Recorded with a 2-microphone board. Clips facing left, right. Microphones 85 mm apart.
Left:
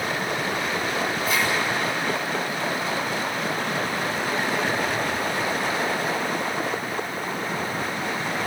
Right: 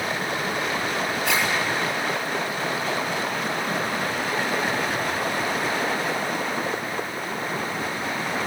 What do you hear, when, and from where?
1.2 s a zipper: 75° right (ahead or behind), 6.5 m